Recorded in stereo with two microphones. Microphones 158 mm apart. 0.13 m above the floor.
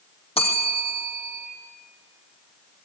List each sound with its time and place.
0.4 s a bell: 40° left (ahead or behind), 3 m